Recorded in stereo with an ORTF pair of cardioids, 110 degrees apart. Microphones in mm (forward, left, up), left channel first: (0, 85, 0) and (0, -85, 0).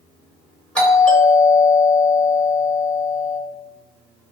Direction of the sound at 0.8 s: 5° left.